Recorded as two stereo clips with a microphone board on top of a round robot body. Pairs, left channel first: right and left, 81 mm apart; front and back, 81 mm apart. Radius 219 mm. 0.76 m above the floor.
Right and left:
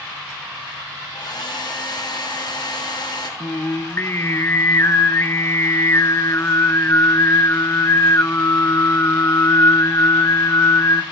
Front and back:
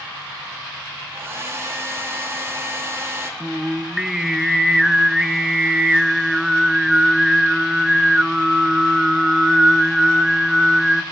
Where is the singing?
100° right, 0.8 m.